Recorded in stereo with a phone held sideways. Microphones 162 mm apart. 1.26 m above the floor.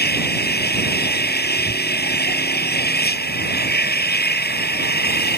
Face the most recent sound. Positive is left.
turn(degrees=85)